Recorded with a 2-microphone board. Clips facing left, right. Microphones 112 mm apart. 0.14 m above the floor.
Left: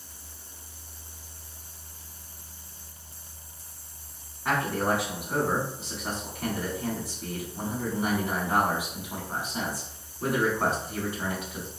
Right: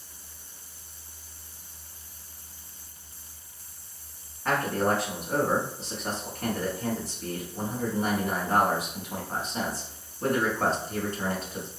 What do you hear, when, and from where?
4.5 s a man speaking: 10° left (ahead or behind), 1.1 m